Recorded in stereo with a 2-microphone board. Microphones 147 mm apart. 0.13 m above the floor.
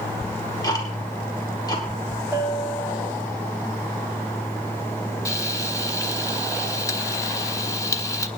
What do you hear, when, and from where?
0.2 s ticking: 25° left (ahead or behind), 3 m
2.3 s a bell: 10° right (ahead or behind), 10 m
5.2 s frying: 20° left (ahead or behind), 1.0 m